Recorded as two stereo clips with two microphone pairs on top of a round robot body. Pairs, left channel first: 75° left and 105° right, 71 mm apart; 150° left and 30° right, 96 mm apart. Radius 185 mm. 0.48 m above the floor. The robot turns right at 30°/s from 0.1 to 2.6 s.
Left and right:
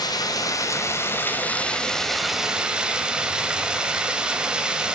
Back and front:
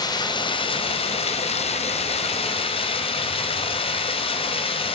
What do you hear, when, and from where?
0.0 s running water: 100° left, 1.7 m; by 5.0 s 175° left, 1.7 m